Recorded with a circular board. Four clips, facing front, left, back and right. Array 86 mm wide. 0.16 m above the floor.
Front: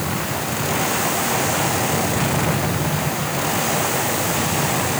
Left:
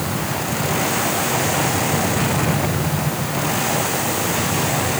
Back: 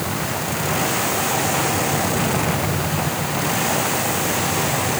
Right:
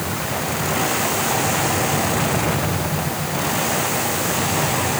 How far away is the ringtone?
I don't hear a ringtone.